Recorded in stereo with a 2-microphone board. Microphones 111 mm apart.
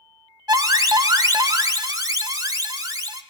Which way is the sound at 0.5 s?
35° right (ahead or behind).